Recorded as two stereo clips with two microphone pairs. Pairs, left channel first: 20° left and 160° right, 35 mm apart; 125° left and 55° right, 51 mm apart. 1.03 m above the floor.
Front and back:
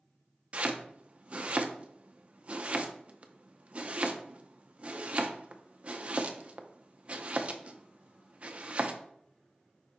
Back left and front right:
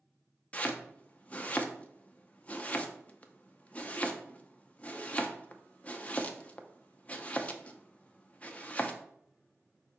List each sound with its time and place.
0.5 s chopping: 175° left, 0.5 m